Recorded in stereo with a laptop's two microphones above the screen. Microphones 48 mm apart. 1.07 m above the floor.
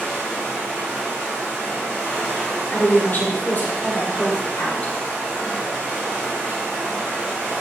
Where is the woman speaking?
40° left (ahead or behind), 0.6 m.